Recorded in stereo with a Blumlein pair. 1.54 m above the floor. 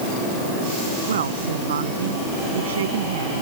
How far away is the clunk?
I don't hear a clunk.